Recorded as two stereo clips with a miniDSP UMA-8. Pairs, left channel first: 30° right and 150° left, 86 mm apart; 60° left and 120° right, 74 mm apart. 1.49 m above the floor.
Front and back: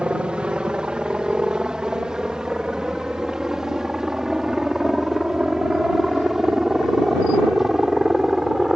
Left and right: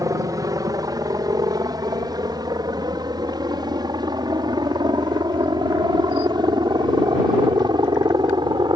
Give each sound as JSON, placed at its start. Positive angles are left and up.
{"t": 0.0, "sound": "a helicopter", "azimuth_deg": -135}